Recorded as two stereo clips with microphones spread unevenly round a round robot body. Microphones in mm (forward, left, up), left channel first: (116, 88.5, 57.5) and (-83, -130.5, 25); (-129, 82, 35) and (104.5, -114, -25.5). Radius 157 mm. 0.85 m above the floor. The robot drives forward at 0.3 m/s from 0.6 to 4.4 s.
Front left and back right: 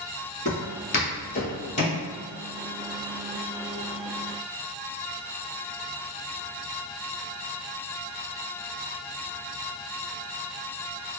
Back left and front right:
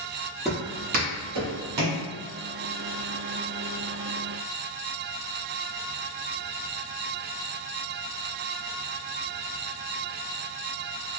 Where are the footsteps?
65° left, 1.0 m; by 2.0 s 15° right, 1.6 m.